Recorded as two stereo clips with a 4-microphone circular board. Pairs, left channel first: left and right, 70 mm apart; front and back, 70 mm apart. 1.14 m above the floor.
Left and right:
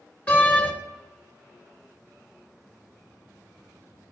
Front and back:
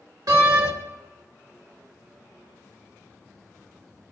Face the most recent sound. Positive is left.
turn(degrees=160)